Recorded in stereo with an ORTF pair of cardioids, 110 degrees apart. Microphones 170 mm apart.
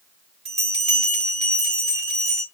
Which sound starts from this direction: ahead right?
A bell, at 0.5 s.